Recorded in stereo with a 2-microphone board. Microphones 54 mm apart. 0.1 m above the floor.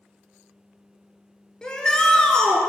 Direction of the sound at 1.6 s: 15° left (ahead or behind).